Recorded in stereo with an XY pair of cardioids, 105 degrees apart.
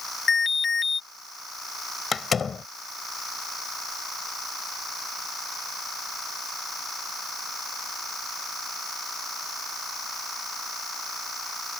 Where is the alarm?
30° left.